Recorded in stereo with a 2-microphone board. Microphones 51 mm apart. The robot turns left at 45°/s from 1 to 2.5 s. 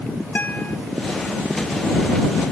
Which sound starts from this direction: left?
A guitar, at 0.3 s.